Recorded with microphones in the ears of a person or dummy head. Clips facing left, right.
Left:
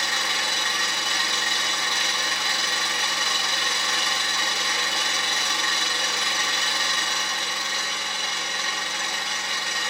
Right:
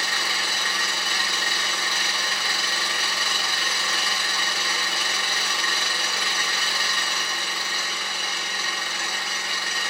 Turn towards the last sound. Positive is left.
turn(degrees=20)  # may be behind; listen again after turning